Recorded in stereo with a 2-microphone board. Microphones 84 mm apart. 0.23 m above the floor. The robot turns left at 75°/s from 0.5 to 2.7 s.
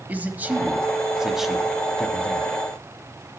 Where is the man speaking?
20° right (ahead or behind), 0.9 m; by 2.5 s 20° left (ahead or behind), 0.9 m.